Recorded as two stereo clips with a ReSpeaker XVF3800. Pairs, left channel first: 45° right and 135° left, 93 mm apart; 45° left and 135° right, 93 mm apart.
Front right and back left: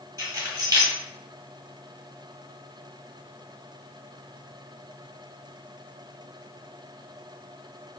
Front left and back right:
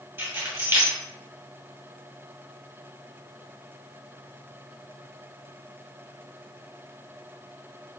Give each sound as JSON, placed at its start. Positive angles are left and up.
{"t": 0.2, "sound": "keys jangling", "azimuth_deg": 170, "distance_m": 1.3}